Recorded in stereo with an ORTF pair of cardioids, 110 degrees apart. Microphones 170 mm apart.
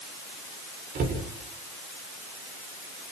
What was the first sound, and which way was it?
A cupboard door, 55° right.